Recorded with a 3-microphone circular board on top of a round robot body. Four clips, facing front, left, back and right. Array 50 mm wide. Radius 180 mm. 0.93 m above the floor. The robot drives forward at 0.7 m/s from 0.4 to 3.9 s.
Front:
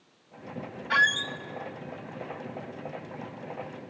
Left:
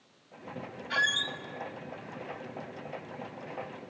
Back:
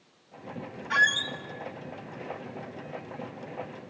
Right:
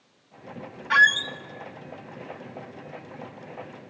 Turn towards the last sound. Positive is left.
turn(degrees=-165)